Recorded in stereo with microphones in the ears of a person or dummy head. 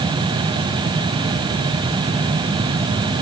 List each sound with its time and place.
Only background noise.